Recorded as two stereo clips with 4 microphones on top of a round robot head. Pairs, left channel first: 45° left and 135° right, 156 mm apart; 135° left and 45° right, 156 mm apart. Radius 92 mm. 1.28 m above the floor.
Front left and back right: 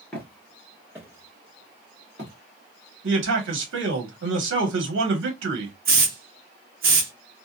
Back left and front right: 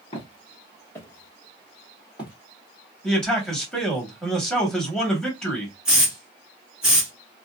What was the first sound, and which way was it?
Footsteps, 120° left.